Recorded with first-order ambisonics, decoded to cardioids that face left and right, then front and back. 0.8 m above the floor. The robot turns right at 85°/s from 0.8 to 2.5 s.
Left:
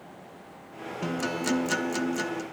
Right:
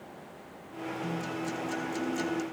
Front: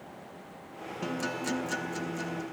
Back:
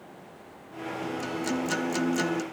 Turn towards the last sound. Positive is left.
turn(degrees=-170)